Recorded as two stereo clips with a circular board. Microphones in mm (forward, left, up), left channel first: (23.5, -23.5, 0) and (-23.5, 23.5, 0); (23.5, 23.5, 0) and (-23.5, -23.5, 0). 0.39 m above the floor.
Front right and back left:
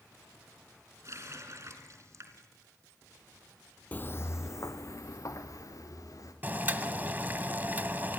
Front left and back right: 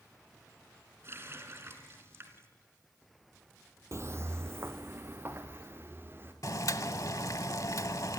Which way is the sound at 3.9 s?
105° right.